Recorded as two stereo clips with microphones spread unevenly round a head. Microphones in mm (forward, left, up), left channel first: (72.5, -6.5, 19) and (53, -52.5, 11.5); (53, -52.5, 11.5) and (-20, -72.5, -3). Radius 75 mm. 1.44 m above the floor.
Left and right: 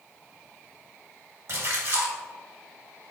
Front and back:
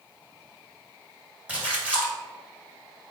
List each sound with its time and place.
1.5 s a splash: 90° right, 2 m